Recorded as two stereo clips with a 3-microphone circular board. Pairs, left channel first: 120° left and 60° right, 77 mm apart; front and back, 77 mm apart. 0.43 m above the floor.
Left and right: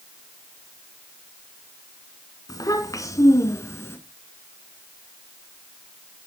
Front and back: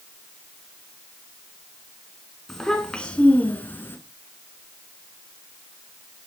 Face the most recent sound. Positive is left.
turn(degrees=60)